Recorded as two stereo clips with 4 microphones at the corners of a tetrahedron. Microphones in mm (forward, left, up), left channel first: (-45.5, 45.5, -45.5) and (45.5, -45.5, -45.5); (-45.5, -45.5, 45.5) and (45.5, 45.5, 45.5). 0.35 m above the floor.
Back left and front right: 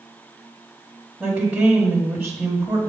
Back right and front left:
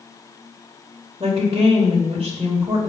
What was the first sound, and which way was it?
A woman speaking, 40° left.